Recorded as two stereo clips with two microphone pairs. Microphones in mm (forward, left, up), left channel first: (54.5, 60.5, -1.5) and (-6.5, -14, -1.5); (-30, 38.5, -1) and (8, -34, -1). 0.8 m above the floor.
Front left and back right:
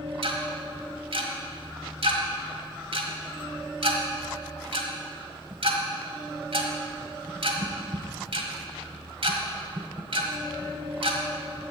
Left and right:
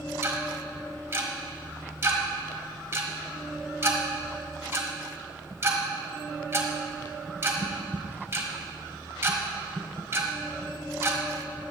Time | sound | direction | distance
0.2 | ticking | 120° right | 1.3 m